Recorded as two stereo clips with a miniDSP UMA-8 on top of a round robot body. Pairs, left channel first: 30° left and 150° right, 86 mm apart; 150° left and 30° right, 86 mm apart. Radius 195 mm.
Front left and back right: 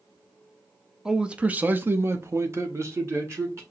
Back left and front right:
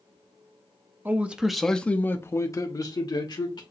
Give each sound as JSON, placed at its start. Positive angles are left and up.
{"t": 1.1, "sound": "a man speaking", "azimuth_deg": -75, "distance_m": 0.9}